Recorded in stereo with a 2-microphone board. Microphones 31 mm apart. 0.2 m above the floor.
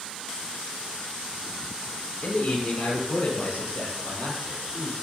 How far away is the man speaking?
About 3.5 m.